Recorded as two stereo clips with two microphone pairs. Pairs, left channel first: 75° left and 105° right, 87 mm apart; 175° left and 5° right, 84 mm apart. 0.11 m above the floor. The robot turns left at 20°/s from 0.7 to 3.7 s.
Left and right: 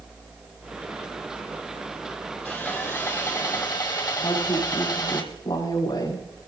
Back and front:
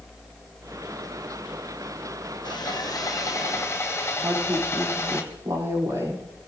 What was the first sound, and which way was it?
Sawing, 145° left.